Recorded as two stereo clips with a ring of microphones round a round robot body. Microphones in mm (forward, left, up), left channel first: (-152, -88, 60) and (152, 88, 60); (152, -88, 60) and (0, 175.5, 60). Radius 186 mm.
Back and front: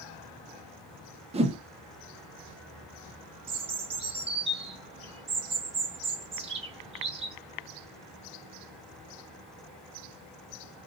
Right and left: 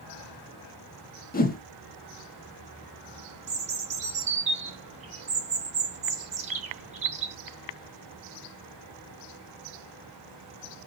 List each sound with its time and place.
1.3 s a whoosh: 30° right, 0.8 m
3.5 s a bird: 85° left, 0.6 m